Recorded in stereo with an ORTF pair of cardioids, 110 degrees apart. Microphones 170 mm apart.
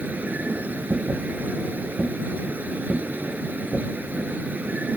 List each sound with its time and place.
0.0 s a machine running: 10° right